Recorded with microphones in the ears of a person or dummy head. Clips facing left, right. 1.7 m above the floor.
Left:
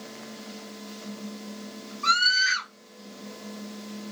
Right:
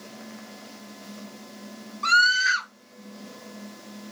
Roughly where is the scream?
Right.